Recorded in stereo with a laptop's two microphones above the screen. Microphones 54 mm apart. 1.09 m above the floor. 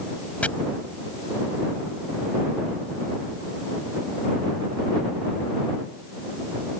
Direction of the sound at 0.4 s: 25° left (ahead or behind).